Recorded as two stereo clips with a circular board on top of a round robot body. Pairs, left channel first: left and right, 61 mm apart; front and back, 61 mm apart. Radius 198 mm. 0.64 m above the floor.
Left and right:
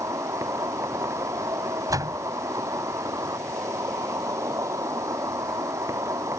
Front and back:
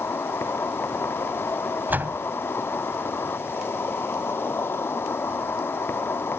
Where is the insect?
50° right.